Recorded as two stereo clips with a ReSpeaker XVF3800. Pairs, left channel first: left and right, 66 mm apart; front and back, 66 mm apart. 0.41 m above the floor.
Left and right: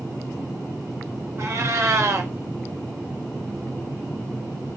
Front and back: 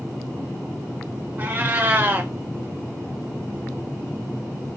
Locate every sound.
1.4 s a cat meowing: 125° right, 0.5 m